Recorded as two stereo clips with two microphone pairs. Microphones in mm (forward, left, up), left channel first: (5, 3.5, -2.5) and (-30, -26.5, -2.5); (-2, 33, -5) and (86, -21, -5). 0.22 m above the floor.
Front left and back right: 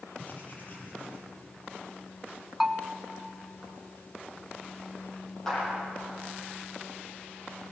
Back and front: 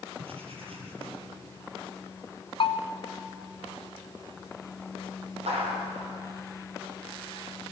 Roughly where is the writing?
Ahead.